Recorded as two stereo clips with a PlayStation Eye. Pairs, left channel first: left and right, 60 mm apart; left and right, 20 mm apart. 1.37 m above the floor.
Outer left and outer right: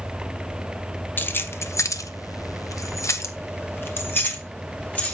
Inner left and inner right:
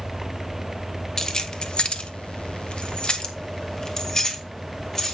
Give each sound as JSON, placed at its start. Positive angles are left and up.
{"t": 1.2, "sound": "keys jangling", "side_deg": 30, "distance_m": 1.0}